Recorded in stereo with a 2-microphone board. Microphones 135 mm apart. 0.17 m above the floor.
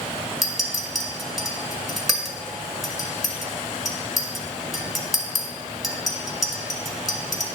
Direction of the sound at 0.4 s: Centre (ahead or behind).